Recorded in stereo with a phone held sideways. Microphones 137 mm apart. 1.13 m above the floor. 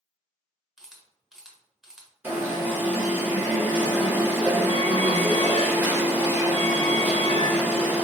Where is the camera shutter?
5° right (ahead or behind), 0.9 m.